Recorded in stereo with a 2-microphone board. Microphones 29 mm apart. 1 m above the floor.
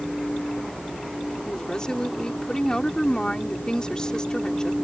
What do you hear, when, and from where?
1.5 s a woman speaking: 30° left (ahead or behind)